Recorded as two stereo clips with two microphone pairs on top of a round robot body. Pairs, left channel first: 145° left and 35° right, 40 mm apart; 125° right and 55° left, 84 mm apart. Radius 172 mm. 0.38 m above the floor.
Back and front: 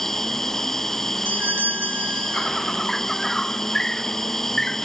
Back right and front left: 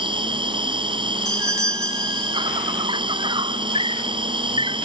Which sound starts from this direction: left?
An insect, at 0.0 s.